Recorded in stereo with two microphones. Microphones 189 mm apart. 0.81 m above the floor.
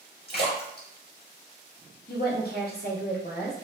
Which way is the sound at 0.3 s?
60° left (ahead or behind).